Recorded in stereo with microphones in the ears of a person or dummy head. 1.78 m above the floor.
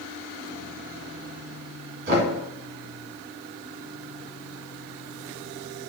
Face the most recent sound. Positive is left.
turn(degrees=-65)  # may be behind; listen again after turning